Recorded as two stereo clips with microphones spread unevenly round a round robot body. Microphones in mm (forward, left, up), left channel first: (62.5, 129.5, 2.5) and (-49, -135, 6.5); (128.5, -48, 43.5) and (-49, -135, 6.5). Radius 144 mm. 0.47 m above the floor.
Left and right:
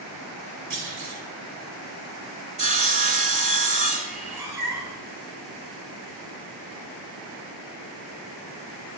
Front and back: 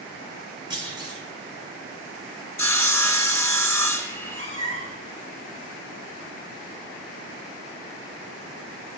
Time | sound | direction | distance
0.7 | a clunk | 95° right | 2 m
2.6 | sawing | 50° right | 1.1 m
4.1 | a cat meowing | 35° right | 2.5 m